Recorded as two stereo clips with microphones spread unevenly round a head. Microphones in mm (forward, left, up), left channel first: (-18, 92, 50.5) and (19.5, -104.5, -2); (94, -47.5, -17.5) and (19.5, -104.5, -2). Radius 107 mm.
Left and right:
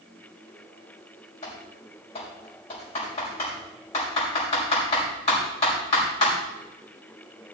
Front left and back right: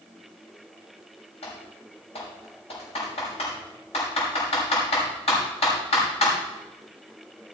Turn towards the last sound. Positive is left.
turn(degrees=35)